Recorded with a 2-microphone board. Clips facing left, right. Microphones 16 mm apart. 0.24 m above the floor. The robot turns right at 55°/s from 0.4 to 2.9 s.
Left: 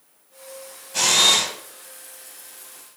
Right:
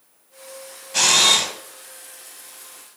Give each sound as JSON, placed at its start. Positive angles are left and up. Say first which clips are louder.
{"t": 0.9, "sound": "a camera shutter", "louder": "right 1 dB", "azimuth_deg": -35, "distance_m": 0.6}